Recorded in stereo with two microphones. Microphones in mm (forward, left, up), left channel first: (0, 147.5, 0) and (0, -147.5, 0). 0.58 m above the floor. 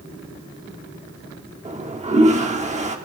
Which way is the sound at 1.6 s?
25° right (ahead or behind).